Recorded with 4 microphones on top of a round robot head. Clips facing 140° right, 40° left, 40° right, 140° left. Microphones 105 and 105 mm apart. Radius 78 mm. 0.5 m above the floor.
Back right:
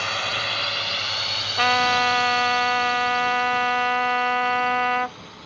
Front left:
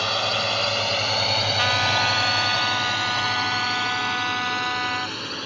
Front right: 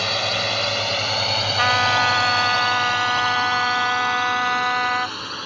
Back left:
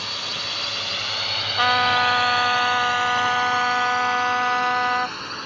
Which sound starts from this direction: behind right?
A trumpet, at 1.6 s.